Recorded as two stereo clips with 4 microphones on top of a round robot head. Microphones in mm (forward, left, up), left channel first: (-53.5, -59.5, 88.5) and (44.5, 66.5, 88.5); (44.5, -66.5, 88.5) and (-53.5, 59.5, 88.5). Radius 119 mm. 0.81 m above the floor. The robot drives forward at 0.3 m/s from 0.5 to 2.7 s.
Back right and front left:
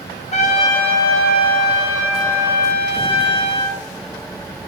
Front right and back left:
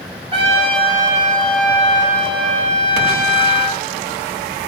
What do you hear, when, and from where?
0.3 s a trumpet: 175° right, 3 m